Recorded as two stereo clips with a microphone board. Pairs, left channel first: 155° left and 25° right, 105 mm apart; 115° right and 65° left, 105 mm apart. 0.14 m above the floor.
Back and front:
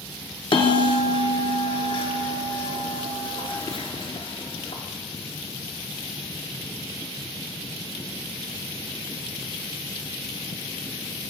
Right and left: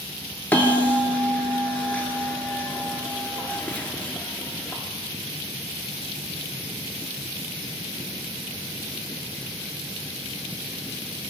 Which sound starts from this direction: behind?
A bell, at 0.5 s.